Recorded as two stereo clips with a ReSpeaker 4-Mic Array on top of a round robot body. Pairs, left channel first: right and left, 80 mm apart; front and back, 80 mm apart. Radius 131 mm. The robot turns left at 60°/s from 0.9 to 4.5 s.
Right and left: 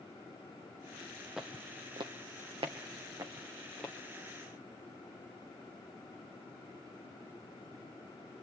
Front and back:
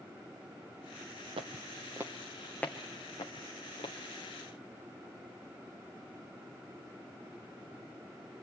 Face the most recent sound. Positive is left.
turn(degrees=-45)